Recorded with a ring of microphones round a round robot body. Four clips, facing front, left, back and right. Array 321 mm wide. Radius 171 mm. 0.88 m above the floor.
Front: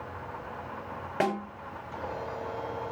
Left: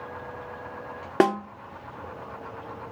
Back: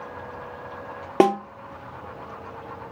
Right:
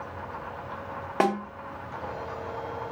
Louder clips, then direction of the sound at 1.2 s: Left 3 dB, back 11 dB; 150° left.